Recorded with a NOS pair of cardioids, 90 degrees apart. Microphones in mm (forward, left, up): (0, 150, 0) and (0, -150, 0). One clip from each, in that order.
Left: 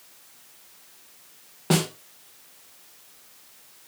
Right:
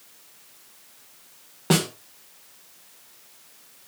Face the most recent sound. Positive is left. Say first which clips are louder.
# right 2 dB
turn(degrees=-15)